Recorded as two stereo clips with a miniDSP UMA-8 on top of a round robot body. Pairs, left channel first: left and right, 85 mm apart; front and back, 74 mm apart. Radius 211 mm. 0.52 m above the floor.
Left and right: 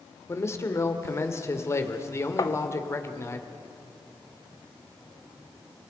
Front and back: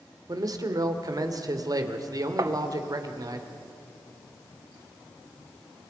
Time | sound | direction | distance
0.3 | a man speaking | 145° left | 2.5 m
2.4 | tapping | 140° left | 1.3 m